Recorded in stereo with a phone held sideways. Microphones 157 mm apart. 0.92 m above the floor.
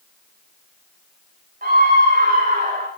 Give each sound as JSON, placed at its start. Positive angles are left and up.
{"t": 1.6, "sound": "a scream", "side_deg": -60, "distance_m": 4.5}